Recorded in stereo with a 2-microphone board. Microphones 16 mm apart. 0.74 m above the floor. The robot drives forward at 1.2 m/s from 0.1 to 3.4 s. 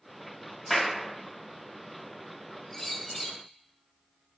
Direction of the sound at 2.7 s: 25° left (ahead or behind).